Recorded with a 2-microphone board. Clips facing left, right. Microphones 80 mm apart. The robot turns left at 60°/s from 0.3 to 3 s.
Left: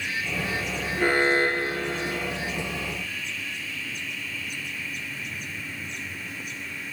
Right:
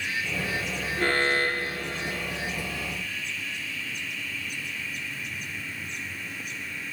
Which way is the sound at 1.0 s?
10° left (ahead or behind).